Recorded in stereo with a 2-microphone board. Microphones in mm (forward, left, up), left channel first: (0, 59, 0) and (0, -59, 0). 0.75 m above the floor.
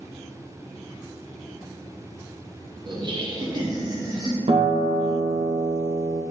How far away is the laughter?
About 0.6 m.